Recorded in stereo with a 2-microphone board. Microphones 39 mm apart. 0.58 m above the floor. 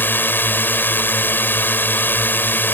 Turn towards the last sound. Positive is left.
turn(degrees=65)  # may be behind; listen again after turning